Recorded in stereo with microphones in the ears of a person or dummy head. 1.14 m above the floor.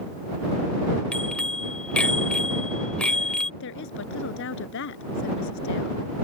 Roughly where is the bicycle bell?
Centre.